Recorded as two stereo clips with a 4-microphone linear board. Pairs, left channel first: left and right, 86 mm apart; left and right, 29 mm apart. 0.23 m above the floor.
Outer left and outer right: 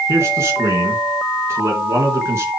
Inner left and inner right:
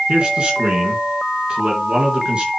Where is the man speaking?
35° right (ahead or behind), 3 m.